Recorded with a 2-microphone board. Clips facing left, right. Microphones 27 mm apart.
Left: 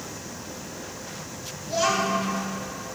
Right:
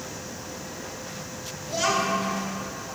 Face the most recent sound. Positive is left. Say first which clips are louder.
# left 1 dB
turn(degrees=25)  # may be behind; listen again after turning